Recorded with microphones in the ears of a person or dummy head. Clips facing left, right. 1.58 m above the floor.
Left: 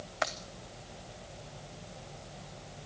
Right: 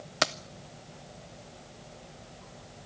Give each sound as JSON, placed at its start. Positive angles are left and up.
{"t": 0.2, "sound": "keys jangling", "side_deg": -40, "distance_m": 0.6}